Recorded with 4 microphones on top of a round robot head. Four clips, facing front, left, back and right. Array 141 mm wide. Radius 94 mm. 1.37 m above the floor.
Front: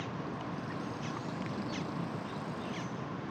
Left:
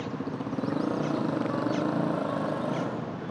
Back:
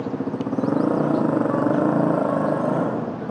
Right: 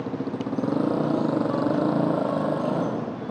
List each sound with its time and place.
0.0 s a motorcycle: 160° right